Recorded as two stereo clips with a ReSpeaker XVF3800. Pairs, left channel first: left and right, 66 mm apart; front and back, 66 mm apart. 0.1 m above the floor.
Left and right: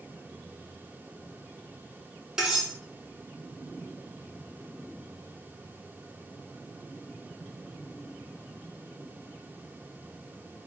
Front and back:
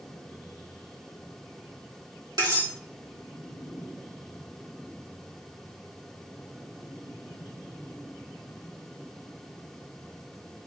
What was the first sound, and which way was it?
Cutlery clinking, 170° right.